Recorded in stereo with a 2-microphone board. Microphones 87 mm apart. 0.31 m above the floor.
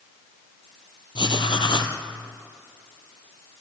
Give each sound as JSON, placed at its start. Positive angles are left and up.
{"t": 1.1, "sound": "writing", "side_deg": 65, "distance_m": 1.9}